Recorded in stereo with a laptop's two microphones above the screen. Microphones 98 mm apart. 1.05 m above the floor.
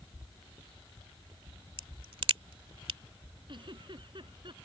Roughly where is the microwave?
No microwave in this recording.